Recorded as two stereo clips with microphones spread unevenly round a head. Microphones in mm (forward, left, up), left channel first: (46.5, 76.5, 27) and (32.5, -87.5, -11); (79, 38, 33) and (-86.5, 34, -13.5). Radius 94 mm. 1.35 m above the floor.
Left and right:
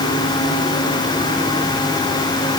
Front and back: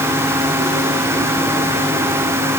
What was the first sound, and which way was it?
Only background noise.